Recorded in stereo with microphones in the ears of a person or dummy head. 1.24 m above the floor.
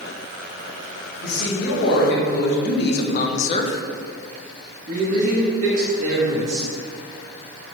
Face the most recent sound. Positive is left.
turn(degrees=-50)  # may be behind; listen again after turning